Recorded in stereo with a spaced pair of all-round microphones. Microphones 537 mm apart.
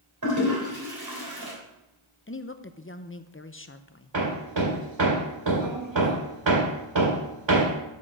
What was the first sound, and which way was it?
A toilet flushing, 40° right (ahead or behind).